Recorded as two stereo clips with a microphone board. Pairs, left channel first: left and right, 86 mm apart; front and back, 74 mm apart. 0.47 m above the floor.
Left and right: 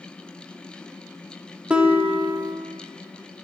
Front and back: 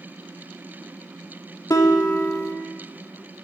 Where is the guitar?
20° right, 0.6 m.